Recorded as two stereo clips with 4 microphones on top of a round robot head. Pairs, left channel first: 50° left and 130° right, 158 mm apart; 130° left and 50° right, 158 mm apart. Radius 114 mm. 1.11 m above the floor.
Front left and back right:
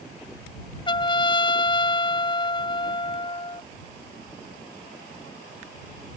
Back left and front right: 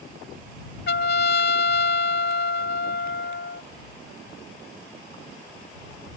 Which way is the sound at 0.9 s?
110° left.